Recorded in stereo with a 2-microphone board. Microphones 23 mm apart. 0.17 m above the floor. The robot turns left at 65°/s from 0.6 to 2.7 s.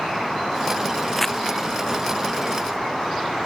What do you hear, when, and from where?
1.2 s crumpling: 5° left (ahead or behind); by 1.4 s 20° left (ahead or behind)